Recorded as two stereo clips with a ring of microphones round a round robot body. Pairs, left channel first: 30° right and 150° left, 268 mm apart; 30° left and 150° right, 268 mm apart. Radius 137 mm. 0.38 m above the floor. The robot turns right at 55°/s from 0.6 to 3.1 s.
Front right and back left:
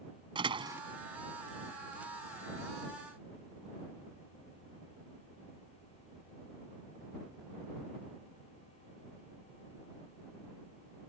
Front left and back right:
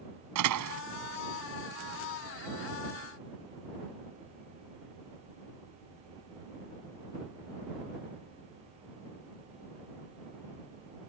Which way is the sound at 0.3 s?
140° right.